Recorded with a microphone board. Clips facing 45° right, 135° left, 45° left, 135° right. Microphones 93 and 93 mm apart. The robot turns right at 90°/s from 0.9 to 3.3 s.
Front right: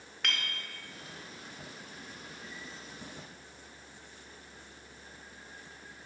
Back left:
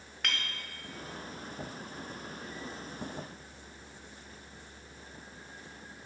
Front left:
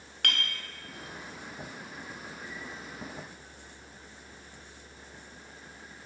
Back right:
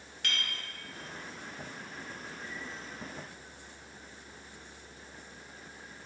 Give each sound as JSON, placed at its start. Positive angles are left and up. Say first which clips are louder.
{"t": 0.2, "sound": "a clink", "louder": "even, front left 4 dB", "azimuth_deg": 45, "distance_m": 0.6}